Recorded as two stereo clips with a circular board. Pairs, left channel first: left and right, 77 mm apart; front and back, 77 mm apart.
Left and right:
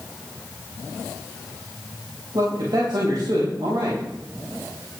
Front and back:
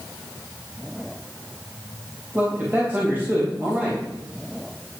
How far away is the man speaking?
About 4 m.